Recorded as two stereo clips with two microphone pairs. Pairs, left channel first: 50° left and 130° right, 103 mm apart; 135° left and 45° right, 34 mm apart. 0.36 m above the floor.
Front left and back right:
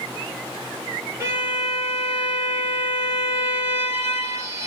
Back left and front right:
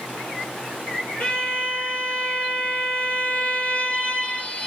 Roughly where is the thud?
No thud in this recording.